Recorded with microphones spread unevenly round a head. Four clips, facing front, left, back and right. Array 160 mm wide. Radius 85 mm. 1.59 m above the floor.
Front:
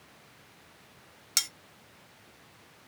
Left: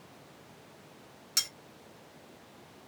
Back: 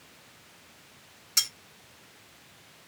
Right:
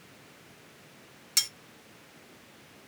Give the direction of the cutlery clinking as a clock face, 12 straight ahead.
12 o'clock.